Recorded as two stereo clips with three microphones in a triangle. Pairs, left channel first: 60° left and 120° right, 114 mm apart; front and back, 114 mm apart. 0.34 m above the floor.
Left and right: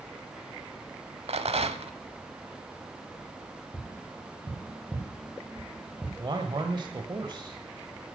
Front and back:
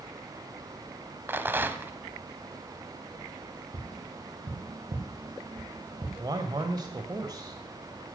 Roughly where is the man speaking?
Behind right.